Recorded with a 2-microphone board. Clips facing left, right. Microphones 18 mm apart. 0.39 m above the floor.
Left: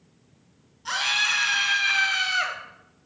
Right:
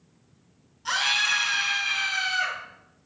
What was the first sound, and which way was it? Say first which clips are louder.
A scream: even; 10° right (ahead or behind).